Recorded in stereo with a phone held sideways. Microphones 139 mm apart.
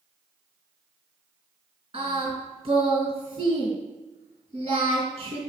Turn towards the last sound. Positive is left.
turn(degrees=-40)  # may be behind; listen again after turning